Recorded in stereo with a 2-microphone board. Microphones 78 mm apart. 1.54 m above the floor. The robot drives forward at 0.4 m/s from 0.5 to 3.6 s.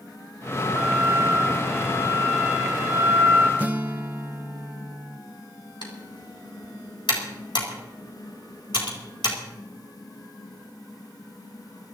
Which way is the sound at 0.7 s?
20° right (ahead or behind).